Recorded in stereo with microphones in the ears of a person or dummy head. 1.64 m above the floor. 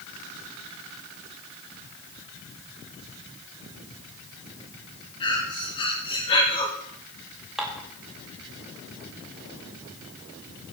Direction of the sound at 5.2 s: 30° left (ahead or behind).